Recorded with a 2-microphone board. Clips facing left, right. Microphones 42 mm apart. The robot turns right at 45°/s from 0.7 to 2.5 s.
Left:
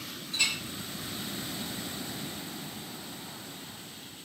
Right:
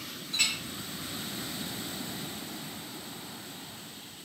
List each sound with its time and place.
0.3 s a clink: 70° right (ahead or behind), 1.5 m